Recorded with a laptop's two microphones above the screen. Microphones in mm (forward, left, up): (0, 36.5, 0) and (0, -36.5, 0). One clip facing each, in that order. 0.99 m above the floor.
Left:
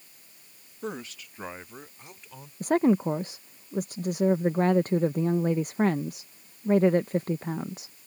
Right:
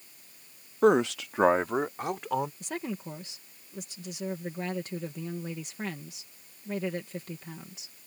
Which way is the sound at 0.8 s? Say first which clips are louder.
Right 15 dB; 60° right (ahead or behind).